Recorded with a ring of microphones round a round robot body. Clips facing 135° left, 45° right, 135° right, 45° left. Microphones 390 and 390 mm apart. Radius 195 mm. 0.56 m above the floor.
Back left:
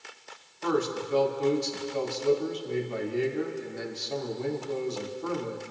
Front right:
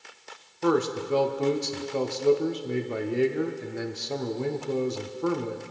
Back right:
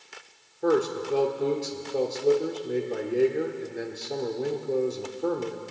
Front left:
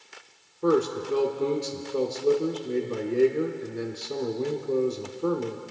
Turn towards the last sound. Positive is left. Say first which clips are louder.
# front right 4 dB, front left 1 dB
turn(degrees=-35)